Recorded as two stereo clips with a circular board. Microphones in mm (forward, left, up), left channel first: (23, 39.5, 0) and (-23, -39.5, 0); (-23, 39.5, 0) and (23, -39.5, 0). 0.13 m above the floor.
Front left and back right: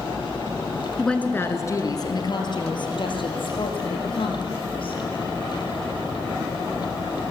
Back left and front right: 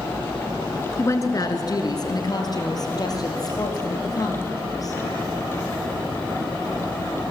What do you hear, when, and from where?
1.0 s a woman speaking: 140° left, 1.3 m; by 5.0 s 70° left, 5.5 m